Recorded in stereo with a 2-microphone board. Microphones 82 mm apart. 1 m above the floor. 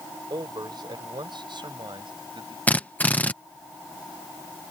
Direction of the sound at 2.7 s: 20° left (ahead or behind).